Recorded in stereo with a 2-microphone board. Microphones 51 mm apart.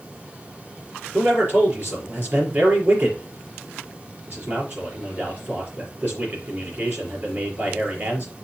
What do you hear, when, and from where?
1.1 s a man speaking: 45° right (ahead or behind), 4.5 m